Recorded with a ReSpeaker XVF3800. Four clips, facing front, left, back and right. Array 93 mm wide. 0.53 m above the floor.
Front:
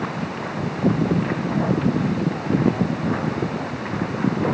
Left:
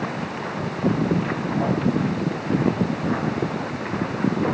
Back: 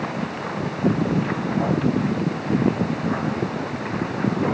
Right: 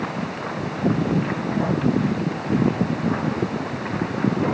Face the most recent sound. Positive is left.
No sound to turn to.